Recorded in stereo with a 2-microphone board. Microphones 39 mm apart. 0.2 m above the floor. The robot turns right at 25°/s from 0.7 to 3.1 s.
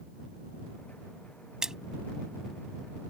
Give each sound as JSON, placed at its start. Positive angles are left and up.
{"t": 1.6, "sound": "a splash", "side_deg": -15}